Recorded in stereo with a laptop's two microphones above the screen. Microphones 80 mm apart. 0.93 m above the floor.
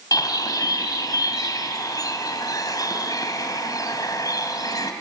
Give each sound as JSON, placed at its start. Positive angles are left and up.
{"t": 0.1, "sound": "a bird", "side_deg": 50, "distance_m": 2.5}